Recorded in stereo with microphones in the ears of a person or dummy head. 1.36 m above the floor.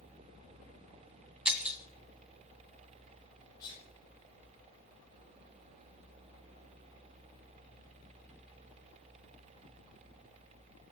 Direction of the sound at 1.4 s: 5° right (ahead or behind).